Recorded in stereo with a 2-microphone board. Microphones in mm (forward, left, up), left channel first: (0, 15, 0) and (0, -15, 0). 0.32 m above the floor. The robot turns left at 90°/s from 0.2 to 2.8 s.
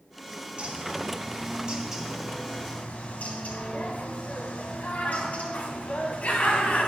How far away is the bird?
About 1.7 m.